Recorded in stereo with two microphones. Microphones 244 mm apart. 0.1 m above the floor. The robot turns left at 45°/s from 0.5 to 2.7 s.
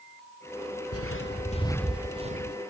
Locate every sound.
0.9 s footsteps: 75° left (ahead or behind), 1.1 m; by 2.6 s 45° right (ahead or behind), 1.4 m